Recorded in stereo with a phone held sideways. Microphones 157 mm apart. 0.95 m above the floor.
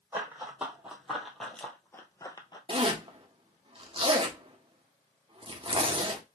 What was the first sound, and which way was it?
Running footsteps, 10° right (ahead or behind).